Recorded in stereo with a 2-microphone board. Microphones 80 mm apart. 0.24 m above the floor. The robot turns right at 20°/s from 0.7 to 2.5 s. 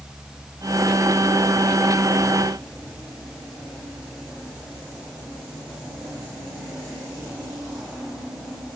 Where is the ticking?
No ticking in this recording.